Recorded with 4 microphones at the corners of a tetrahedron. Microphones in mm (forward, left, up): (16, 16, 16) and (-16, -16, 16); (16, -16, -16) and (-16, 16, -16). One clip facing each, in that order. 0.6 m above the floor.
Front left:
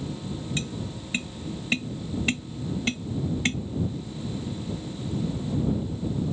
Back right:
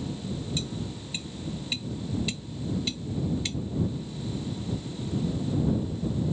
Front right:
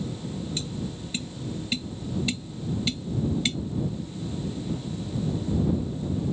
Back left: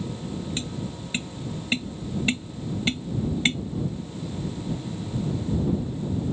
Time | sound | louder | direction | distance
0.6 | tapping | front left 2 dB, back left 1 dB | 85° left | ?